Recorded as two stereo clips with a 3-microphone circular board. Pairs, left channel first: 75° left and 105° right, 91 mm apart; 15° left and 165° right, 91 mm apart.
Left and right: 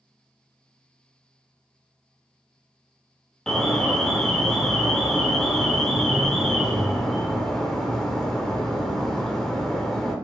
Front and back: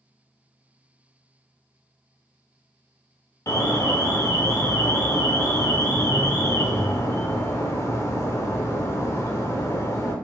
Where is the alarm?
5° right, 1.0 m.